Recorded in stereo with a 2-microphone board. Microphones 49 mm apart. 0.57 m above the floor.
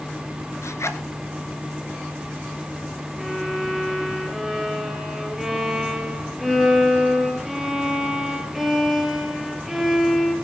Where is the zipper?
70° left (ahead or behind), 1.3 m.